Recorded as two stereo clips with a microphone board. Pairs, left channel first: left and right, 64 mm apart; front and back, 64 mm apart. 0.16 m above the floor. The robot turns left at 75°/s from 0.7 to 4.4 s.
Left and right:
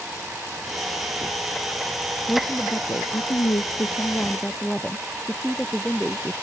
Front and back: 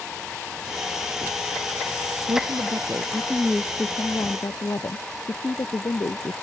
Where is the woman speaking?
170° left; by 6.3 s 10° left.